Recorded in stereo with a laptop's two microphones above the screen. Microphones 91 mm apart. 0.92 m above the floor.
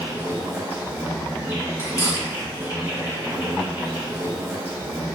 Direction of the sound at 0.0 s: 25° right (ahead or behind).